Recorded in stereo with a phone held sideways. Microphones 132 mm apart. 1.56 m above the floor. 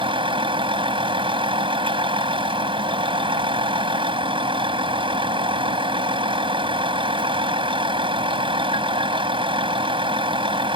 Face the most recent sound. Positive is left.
turn(degrees=-40)  # may be behind; listen again after turning